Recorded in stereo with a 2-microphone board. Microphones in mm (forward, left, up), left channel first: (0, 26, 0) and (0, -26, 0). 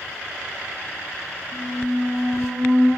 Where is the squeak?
10° right (ahead or behind), 1.8 m.